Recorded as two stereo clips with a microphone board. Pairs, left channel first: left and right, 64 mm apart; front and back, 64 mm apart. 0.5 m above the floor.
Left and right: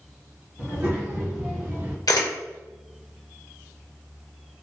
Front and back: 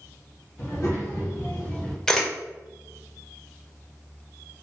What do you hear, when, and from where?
0.6 s a child speaking: 40° right, 1.4 m; by 2.0 s 70° right, 0.5 m
2.1 s a camera shutter: 80° left, 0.5 m